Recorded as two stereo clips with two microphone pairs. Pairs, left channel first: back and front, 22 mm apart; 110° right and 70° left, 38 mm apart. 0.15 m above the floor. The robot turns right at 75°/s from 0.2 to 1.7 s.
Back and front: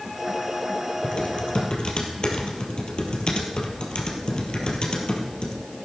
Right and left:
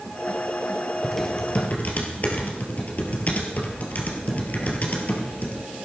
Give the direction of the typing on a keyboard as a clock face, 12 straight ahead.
7 o'clock.